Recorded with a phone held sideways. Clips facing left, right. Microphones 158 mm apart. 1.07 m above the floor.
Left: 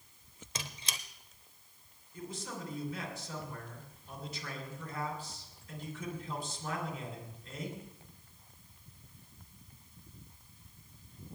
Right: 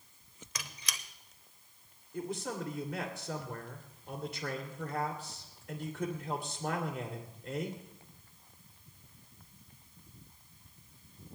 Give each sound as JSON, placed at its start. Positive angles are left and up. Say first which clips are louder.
{"t": 0.6, "sound": "a squeak", "louder": "left 2 dB", "side_deg": 25, "distance_m": 0.8}
{"t": 2.1, "sound": "a man speaking", "louder": "right 6 dB", "side_deg": -65, "distance_m": 2.5}